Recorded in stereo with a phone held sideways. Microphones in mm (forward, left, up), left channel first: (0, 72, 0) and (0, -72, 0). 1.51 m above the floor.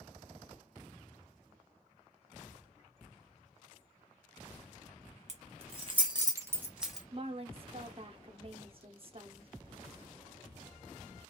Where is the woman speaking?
40° right (ahead or behind), 0.6 m.